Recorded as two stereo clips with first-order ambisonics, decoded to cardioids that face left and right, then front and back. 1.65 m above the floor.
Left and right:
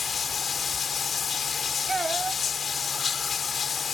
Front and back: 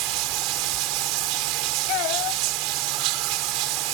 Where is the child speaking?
15° right.